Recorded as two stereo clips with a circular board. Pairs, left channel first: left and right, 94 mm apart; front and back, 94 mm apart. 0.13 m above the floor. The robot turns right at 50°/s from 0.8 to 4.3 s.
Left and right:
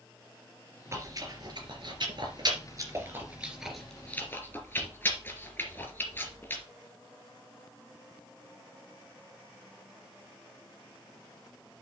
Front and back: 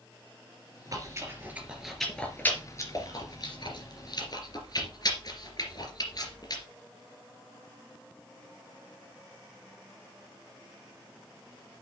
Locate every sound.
0.9 s chewing: 140° right, 2.5 m; by 6.6 s 30° left, 2.5 m